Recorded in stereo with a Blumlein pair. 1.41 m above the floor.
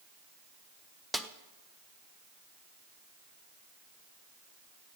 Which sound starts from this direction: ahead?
A snare drum, at 1.1 s.